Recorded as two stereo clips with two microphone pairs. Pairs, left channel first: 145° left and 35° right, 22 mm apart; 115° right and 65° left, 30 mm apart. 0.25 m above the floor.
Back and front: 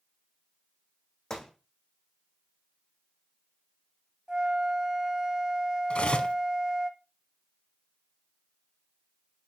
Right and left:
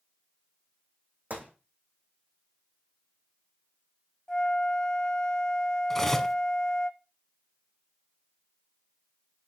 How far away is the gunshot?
About 2.5 m.